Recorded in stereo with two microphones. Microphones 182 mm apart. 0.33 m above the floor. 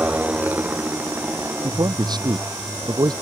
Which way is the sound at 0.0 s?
10° right (ahead or behind).